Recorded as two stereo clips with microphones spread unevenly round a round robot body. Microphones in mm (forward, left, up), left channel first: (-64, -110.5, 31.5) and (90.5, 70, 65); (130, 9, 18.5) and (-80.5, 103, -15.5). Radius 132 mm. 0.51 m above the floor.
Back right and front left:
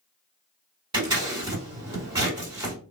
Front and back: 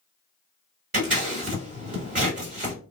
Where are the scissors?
120° left, 2 m.